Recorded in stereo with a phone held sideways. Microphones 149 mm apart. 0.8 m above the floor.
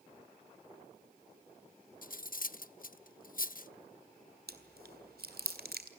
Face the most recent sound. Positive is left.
turn(degrees=-85)